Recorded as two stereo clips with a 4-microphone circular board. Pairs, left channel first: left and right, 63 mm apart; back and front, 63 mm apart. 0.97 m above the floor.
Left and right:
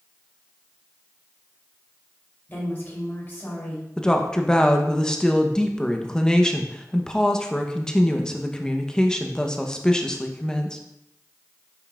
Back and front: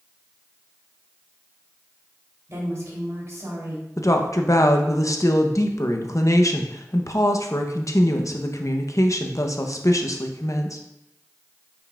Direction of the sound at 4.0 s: 170° left.